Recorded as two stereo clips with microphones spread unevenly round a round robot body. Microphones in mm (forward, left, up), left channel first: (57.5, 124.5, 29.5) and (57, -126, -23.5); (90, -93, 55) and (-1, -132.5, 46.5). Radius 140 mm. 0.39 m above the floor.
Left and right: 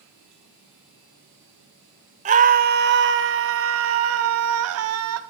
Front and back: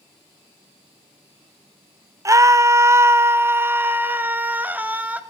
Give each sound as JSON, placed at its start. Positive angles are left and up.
{"t": 2.2, "sound": "a scream", "azimuth_deg": -120, "distance_m": 1.1}